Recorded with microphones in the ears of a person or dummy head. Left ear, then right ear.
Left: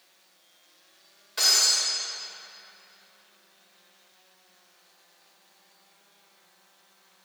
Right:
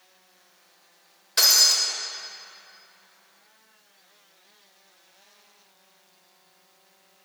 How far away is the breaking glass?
About 1.7 m.